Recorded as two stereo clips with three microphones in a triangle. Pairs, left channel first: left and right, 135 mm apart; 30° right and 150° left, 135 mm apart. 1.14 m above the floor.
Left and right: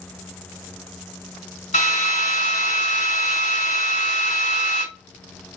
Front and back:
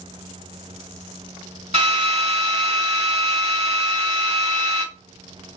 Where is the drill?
110° left, 1.6 m.